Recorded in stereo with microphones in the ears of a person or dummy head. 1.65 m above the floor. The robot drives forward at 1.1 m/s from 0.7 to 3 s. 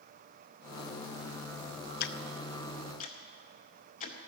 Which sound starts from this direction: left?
Ticking, at 2.0 s.